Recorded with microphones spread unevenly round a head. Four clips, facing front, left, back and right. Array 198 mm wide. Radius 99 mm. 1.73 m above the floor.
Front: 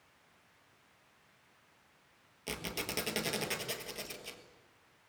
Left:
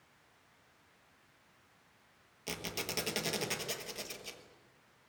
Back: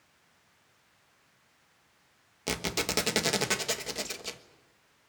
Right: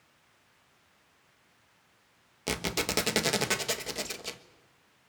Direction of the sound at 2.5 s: 125° right.